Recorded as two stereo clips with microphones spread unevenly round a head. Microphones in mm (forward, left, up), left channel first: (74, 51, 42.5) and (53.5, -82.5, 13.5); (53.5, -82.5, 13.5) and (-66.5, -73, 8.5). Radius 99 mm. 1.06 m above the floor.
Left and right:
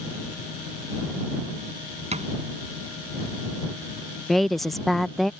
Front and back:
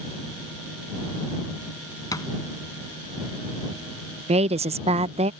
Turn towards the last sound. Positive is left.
turn(degrees=180)